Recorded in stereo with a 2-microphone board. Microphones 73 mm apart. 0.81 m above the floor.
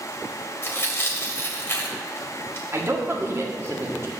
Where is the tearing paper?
35° left (ahead or behind), 1.5 m.